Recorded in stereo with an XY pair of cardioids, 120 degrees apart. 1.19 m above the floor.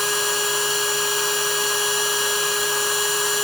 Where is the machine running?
15° left.